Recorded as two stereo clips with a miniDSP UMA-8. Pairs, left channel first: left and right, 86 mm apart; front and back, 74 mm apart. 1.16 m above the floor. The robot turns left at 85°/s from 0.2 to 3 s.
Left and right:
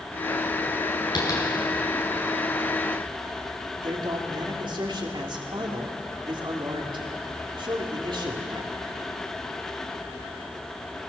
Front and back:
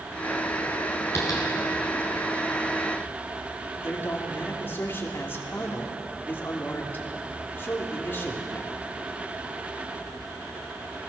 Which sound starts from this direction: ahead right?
A man speaking, at 3.8 s.